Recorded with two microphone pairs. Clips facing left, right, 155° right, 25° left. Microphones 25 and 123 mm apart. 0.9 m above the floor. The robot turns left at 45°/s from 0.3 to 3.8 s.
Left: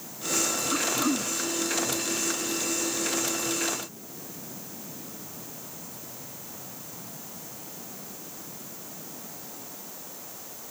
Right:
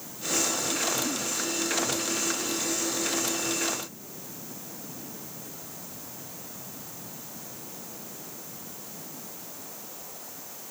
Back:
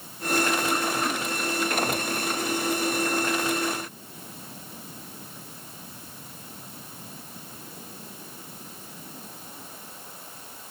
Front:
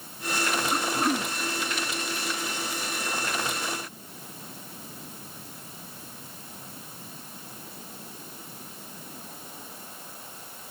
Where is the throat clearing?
105° left; by 1.3 s 75° left.